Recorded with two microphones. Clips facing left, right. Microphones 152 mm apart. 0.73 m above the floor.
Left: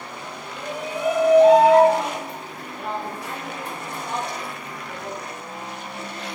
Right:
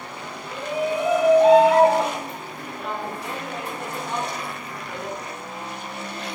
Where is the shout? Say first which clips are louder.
Right 6 dB; 55° right (ahead or behind), 2 m; by 5.2 s 5° right (ahead or behind), 3.5 m.